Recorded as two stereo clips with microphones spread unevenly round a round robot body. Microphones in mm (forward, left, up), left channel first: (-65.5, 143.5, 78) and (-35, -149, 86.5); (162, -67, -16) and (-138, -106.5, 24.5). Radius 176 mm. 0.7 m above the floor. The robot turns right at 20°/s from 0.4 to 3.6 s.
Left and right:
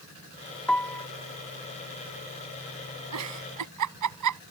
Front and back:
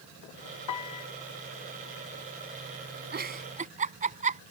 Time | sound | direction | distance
0.7 | a piano | 10° left | ?
3.1 | a giggle | 115° right | ?